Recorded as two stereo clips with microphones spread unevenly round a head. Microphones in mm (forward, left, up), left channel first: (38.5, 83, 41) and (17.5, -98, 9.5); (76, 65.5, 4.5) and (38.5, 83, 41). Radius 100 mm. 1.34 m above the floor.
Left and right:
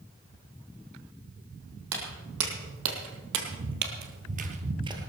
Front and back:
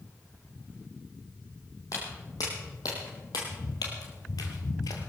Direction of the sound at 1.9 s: 105° right.